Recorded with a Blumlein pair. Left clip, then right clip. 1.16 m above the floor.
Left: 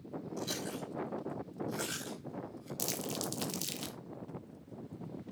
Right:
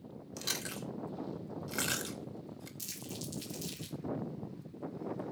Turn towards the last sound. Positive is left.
turn(degrees=60)